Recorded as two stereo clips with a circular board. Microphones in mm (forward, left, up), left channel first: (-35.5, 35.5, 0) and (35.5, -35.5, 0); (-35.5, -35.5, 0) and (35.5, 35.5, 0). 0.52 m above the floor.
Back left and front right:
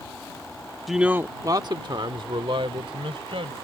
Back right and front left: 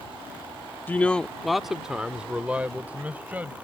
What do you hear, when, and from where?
0.9 s a man speaking: 135° right; by 3.5 s 25° right